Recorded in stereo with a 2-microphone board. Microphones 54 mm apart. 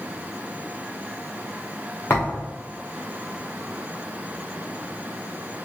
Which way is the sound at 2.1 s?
40° left (ahead or behind).